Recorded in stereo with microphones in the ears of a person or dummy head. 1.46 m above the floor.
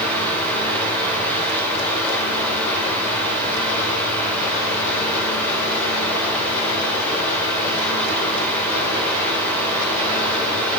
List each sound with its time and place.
0.0 s a fan: 10° left (ahead or behind), 3.5 m